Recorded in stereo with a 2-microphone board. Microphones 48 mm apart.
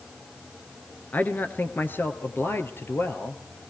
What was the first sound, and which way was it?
A man speaking, 35° left (ahead or behind).